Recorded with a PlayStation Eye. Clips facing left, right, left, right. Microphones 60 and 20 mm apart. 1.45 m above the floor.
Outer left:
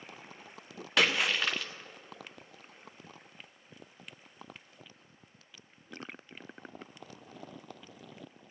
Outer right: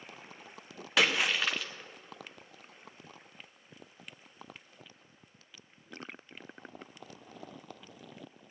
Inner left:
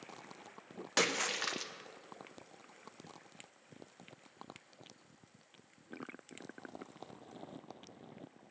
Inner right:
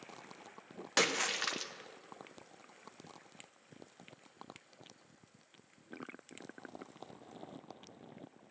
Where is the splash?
Centre (ahead or behind), 0.7 m.